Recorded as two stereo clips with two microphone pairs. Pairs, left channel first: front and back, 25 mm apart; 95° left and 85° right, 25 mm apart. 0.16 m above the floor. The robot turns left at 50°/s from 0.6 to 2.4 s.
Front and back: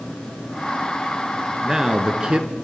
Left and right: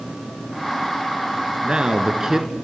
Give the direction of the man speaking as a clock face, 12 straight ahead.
4 o'clock.